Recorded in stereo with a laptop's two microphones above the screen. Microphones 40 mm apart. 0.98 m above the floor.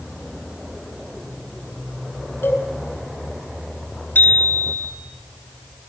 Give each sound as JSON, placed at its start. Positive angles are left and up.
{"t": 2.4, "sound": "a cowbell", "side_deg": 85, "distance_m": 7.5}
{"t": 4.2, "sound": "a bicycle bell", "side_deg": 55, "distance_m": 7.0}